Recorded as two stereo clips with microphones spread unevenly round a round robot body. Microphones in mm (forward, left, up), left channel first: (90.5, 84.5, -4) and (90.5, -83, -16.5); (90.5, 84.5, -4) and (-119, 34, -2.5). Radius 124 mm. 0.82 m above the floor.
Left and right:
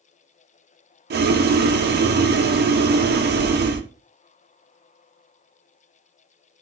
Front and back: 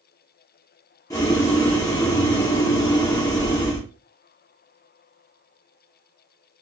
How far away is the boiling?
About 0.8 m.